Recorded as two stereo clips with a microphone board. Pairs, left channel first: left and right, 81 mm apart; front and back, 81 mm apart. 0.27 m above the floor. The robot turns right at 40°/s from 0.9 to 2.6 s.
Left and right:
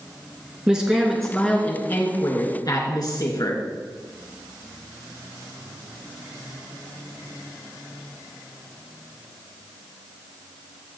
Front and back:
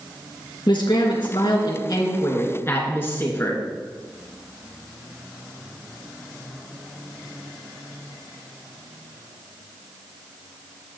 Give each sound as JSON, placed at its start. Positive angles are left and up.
{"t": 0.7, "sound": "a man speaking", "azimuth_deg": -10, "distance_m": 3.0}